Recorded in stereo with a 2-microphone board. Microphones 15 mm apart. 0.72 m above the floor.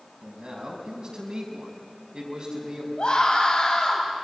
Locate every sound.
0.2 s a man speaking: 50° right (ahead or behind), 5.5 m
3.0 s a scream: 70° left (ahead or behind), 4.5 m